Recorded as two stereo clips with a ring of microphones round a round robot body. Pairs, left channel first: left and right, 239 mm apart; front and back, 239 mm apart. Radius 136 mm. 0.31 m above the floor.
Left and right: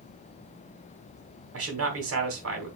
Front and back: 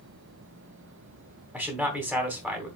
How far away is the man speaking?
About 2.5 m.